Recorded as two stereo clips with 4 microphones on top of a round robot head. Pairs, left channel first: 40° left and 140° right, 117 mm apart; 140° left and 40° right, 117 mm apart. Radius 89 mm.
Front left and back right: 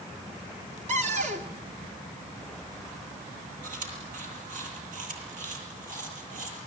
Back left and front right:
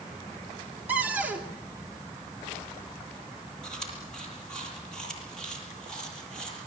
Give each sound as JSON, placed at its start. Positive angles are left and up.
{"t": 0.9, "sound": "a cupboard door", "azimuth_deg": -120, "distance_m": 3.5}
{"t": 3.6, "sound": "chewing", "azimuth_deg": -135, "distance_m": 8.5}